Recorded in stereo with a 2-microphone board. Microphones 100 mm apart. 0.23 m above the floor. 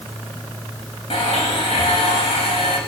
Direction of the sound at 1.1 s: 65° left (ahead or behind).